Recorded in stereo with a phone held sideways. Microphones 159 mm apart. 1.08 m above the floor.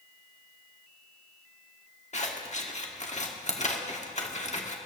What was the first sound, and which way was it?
Scissors, 45° left (ahead or behind).